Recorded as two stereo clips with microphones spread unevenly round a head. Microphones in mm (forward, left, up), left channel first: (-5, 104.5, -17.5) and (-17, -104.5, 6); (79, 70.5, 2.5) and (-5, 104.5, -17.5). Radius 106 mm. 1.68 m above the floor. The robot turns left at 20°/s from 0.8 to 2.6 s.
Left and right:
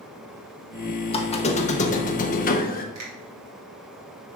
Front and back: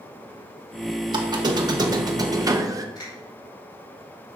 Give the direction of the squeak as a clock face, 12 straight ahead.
7 o'clock.